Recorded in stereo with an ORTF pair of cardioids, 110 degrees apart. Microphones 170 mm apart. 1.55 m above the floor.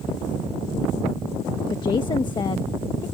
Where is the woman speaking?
30° left.